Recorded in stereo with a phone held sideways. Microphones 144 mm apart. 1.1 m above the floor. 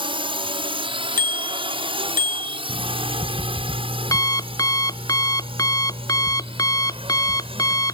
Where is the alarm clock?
25° left (ahead or behind).